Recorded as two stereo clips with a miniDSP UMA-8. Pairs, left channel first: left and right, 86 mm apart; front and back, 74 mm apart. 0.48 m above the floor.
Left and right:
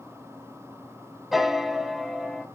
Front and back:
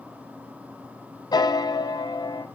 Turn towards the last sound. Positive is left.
turn(degrees=-5)